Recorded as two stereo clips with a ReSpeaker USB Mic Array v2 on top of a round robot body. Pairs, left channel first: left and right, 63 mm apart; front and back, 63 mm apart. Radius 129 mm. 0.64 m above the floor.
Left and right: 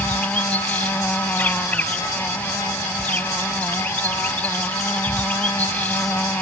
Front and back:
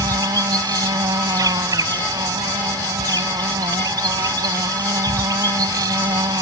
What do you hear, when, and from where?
0.0 s an insect: 155° left